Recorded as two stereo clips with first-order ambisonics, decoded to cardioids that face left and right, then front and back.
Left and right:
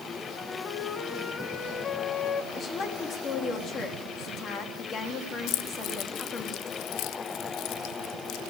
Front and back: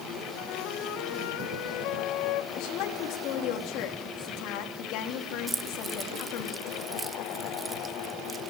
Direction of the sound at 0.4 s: 20° left.